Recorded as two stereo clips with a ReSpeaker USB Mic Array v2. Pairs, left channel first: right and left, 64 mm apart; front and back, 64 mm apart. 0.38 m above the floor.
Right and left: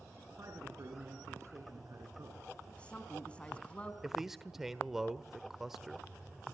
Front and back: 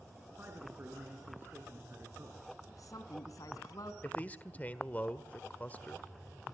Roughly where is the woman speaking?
Ahead.